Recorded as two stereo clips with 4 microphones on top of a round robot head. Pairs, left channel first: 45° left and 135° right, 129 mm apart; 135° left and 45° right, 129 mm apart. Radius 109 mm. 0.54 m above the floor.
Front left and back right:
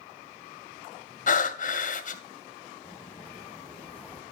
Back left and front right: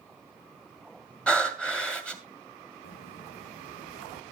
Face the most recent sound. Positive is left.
turn(degrees=125)